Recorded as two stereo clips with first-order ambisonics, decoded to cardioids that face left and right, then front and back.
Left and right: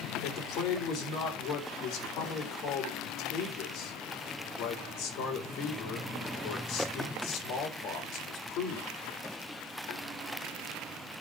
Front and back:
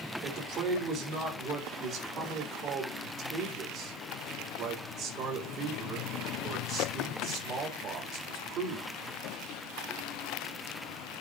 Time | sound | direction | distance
0.2 | a man speaking | 135° left | 3.5 m